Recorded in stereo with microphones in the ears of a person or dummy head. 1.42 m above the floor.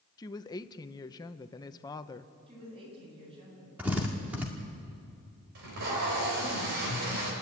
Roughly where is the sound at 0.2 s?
Centre.